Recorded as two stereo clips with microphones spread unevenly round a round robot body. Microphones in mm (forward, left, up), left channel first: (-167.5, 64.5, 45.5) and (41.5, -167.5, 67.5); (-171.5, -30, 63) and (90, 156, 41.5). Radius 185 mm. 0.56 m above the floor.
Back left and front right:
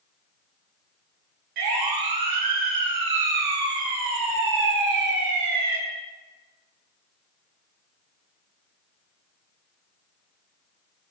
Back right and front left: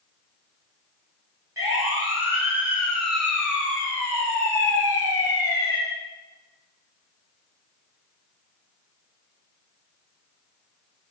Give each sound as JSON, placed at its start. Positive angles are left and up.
{"t": 1.6, "sound": "a siren", "azimuth_deg": -45, "distance_m": 7.0}